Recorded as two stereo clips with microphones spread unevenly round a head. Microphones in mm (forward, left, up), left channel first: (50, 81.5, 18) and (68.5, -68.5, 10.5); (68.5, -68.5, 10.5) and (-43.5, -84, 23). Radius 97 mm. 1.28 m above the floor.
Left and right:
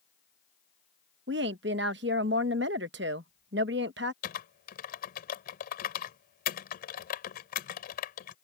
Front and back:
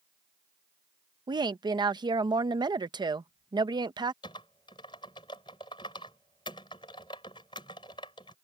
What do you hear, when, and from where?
1.3 s a woman speaking: 120° right
4.2 s typing on a keyboard: 75° left